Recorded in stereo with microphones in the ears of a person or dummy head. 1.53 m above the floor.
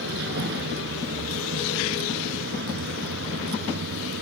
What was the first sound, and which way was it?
A vehicle, 65° right (ahead or behind).